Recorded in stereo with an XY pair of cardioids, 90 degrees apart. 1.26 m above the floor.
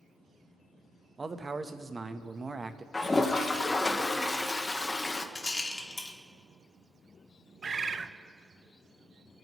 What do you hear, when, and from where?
1.2 s a man speaking: 25° right, 1.0 m
2.9 s a toilet flushing: 25° left, 1.1 m
5.3 s a rattle: 30° left, 2 m
7.6 s a bird: 40° right, 0.7 m